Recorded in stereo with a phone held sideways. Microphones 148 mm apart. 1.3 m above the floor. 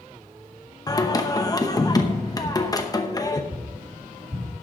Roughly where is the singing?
Left.